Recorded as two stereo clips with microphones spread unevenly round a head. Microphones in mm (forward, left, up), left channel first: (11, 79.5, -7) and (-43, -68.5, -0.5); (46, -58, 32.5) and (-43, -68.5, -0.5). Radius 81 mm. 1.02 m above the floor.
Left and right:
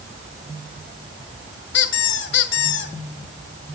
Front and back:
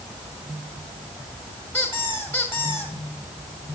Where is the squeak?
80° left, 2 m.